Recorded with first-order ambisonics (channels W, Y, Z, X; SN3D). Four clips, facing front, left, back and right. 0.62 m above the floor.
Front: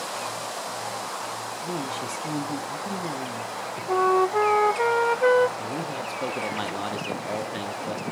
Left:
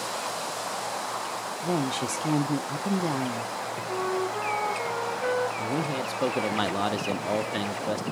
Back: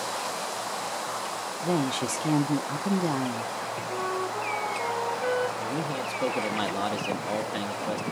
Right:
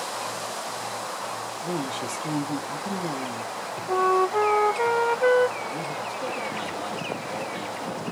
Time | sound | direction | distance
1.6 | a woman speaking | 150° left | 0.6 m
3.9 | a flute | 30° right | 0.6 m
5.6 | a man speaking | 95° left | 0.9 m